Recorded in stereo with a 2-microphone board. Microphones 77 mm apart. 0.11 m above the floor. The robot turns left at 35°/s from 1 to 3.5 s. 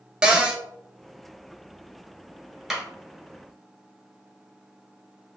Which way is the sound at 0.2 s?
10° right (ahead or behind).